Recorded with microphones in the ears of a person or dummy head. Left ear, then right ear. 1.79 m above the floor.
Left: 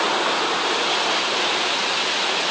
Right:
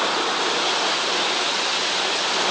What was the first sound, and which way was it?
Only background noise.